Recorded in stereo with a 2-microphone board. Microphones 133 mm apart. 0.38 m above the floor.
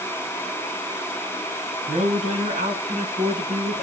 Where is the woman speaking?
65° right (ahead or behind), 3 m; by 3.8 s 75° right (ahead or behind), 5 m.